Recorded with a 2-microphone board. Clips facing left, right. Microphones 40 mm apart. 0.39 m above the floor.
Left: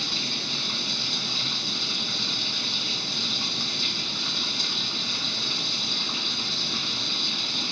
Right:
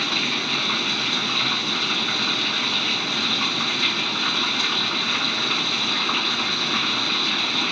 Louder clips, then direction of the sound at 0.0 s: Right 7 dB; 45° right (ahead or behind).